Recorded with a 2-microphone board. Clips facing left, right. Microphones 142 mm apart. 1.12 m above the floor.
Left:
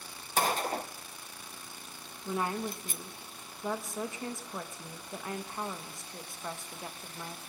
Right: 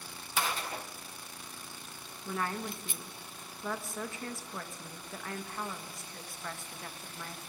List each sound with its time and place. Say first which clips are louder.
0.4 s a gunshot: left 5 dB; 45° left (ahead or behind), 0.7 m
2.2 s a woman speaking: left 3 dB; 20° left (ahead or behind), 1.5 m